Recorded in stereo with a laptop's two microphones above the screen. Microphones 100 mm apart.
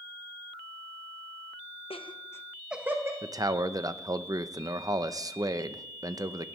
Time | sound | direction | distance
1.9 | laughter | 65° left (ahead or behind) | 1.0 m
3.2 | a man speaking | 35° right (ahead or behind) | 0.7 m